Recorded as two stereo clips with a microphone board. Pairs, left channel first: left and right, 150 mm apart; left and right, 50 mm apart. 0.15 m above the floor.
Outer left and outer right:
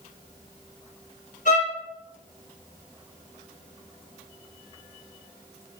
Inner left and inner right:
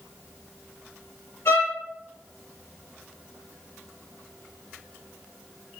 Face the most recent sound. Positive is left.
turn(degrees=60)  # may be behind; listen again after turning